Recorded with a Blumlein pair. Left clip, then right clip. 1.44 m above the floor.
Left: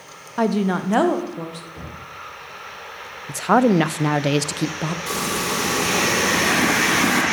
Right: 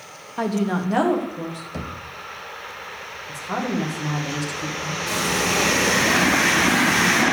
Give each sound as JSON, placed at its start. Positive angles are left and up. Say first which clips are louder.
{"t": 0.4, "sound": "a woman speaking", "louder": "left 3 dB", "azimuth_deg": 15, "distance_m": 0.8}
{"t": 1.7, "sound": "knocking", "louder": "right 4 dB", "azimuth_deg": -45, "distance_m": 1.8}
{"t": 3.3, "sound": "a woman speaking", "louder": "left 10 dB", "azimuth_deg": 35, "distance_m": 0.7}
{"t": 5.1, "sound": "frying", "louder": "right 3 dB", "azimuth_deg": 35, "distance_m": 5.5}